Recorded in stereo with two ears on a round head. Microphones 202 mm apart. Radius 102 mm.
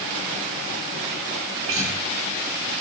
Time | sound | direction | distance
1.7 | a guitar | 65° right (ahead or behind) | 7 m